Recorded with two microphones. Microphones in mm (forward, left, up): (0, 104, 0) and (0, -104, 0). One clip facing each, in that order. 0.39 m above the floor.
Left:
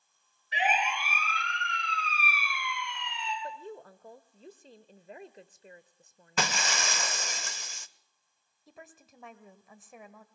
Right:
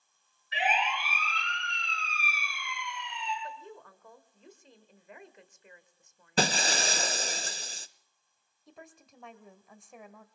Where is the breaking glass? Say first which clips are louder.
Right 4 dB; 35° right (ahead or behind), 0.7 m.